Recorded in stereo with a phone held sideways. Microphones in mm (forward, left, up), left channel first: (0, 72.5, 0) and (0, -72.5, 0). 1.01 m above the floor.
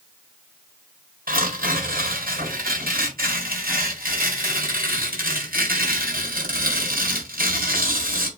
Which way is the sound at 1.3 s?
80° right.